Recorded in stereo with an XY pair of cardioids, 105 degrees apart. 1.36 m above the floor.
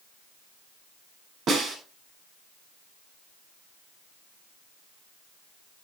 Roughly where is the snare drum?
Ahead right.